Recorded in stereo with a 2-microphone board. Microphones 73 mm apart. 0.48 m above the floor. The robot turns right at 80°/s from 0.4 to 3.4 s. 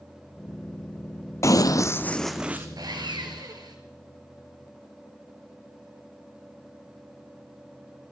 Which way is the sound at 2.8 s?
120° right.